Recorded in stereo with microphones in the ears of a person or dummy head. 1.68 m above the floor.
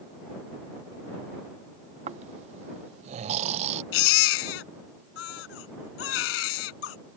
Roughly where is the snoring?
Right.